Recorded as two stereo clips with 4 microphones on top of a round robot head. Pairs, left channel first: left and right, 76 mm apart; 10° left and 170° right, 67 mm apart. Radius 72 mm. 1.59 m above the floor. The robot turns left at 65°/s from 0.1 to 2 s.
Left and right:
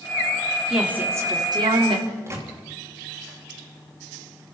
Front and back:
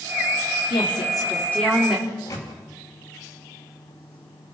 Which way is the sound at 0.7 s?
5° right.